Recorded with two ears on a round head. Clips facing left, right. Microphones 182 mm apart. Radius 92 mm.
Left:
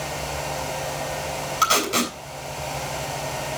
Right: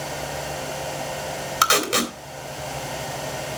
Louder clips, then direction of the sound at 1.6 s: Right 1 dB; 70° right (ahead or behind).